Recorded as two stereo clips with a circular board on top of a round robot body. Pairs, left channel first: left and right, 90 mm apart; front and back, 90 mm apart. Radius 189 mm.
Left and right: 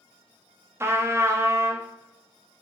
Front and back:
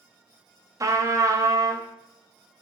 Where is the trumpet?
140° right, 0.6 m.